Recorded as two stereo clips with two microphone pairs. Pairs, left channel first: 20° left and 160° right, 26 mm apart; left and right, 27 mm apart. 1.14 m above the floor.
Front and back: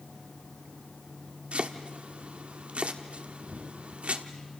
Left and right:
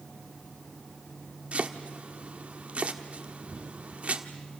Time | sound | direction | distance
1.5 | chopping | 130° right | 1.3 m